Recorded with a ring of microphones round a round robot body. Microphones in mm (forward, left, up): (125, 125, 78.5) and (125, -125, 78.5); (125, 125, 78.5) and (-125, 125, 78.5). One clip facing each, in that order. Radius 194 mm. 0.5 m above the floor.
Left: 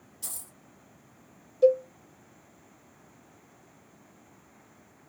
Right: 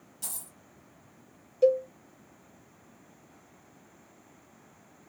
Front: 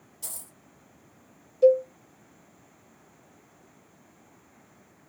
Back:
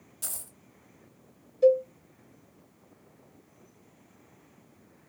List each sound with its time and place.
0.2 s a dropped coin: 140° right, 1.4 m
1.6 s a cowbell: 45° right, 1.3 m